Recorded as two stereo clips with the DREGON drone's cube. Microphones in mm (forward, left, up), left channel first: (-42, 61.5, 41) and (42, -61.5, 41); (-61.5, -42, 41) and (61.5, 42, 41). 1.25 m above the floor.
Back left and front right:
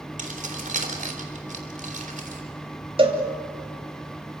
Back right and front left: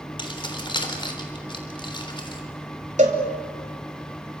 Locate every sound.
0.2 s keys jangling: 90° right, 3.5 m
3.0 s a cowbell: 5° right, 3 m